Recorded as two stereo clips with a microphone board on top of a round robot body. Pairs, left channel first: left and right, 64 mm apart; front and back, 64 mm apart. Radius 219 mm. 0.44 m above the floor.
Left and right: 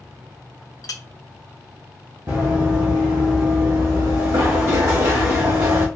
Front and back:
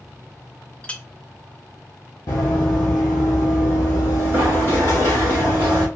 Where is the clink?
70° left, 0.5 m.